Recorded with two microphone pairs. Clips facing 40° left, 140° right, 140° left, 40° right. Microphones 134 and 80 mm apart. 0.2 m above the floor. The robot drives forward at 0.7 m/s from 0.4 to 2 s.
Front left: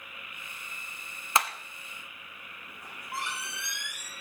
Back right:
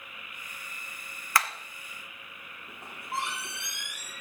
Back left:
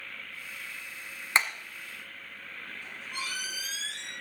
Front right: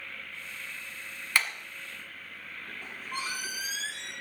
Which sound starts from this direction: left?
Hammering, at 1.4 s.